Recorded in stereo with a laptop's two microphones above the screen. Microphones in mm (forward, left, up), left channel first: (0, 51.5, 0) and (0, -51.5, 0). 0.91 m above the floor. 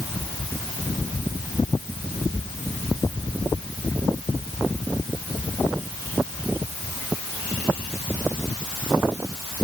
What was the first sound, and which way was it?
Only background noise.